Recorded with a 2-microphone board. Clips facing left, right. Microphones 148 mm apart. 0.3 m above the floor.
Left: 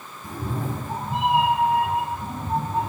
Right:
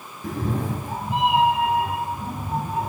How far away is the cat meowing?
About 0.8 m.